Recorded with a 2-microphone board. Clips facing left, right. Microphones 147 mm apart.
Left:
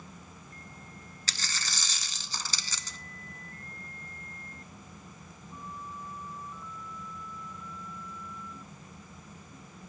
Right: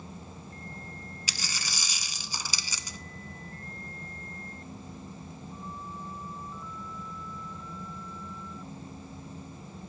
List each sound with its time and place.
1.3 s a dropped coin: 10° right (ahead or behind), 0.5 m